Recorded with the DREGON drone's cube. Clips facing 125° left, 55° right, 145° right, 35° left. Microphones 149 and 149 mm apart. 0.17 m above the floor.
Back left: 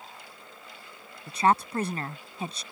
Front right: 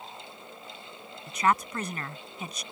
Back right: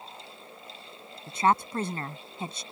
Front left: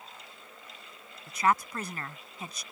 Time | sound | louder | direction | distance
1.3 | a woman speaking | back left 2 dB, back right 2 dB | 165° left | ?